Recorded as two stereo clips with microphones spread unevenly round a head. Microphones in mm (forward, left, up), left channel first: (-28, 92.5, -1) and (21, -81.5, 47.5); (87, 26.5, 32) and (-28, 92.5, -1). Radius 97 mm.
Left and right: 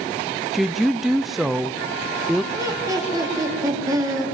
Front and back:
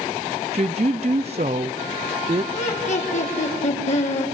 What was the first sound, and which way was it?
A woman speaking, 150° right.